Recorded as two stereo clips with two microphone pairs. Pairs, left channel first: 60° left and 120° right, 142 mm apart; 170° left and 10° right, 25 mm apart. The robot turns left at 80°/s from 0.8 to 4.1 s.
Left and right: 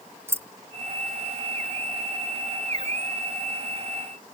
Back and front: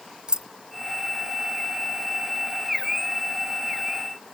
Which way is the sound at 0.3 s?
50° right.